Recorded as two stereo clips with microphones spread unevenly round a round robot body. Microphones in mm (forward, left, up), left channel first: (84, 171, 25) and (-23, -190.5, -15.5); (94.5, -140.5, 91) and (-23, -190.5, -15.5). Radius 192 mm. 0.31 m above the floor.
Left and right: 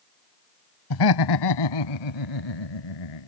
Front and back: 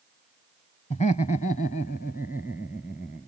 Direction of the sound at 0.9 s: 105° left.